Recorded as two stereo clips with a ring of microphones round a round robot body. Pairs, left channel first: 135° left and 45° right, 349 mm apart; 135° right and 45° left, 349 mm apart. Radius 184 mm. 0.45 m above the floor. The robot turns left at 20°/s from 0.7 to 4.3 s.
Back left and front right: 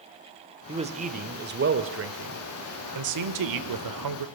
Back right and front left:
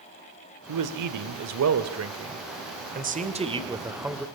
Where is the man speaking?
30° left, 1.7 m; by 4.3 s 45° right, 1.7 m.